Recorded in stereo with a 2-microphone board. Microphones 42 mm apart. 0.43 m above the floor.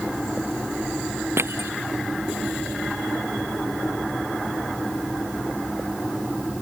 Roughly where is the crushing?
Right.